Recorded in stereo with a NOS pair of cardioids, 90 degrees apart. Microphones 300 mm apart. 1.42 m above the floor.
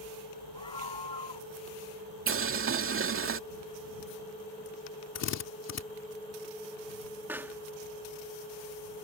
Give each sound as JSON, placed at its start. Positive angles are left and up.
{"t": 0.6, "sound": "a scream", "azimuth_deg": 15}
{"t": 2.3, "sound": "boiling", "azimuth_deg": -45}
{"t": 5.2, "sound": "a drill", "azimuth_deg": 60}
{"t": 7.3, "sound": "a pop", "azimuth_deg": -5}